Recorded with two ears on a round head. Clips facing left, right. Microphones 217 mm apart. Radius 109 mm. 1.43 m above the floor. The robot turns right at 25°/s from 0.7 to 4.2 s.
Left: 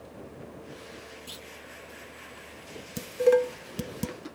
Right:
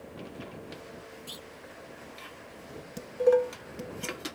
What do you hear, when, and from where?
1.3 s a clunk: centre (ahead or behind); by 1.5 s 10° left (ahead or behind)
3.0 s dishes clattering: 30° left (ahead or behind); by 4.2 s 55° left (ahead or behind)